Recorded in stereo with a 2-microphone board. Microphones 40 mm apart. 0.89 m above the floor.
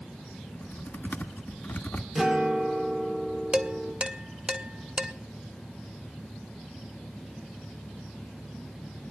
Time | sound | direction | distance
0.5 | typing on a keyboard | 50° left (ahead or behind) | 1.4 m
2.1 | a guitar | 10° right (ahead or behind) | 2.5 m
3.5 | dishes clattering | 25° right (ahead or behind) | 1.1 m